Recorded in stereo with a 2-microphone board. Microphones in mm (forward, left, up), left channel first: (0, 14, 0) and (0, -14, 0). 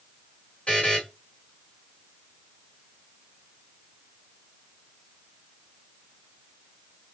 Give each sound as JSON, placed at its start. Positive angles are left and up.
{"t": 0.7, "sound": "a buzzer", "side_deg": 35, "distance_m": 1.4}